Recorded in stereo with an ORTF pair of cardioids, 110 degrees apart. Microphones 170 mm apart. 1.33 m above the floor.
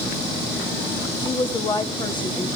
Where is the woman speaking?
25° left, 2.0 m.